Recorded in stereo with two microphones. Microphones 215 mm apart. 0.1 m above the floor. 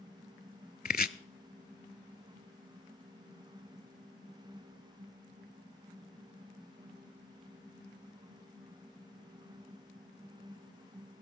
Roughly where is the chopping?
Left.